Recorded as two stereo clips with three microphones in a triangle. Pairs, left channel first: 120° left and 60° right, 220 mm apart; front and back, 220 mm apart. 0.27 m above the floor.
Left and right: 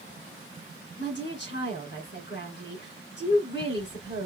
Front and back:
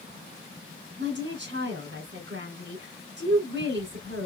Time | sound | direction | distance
1.0 | a woman speaking | 150° left | 2.5 m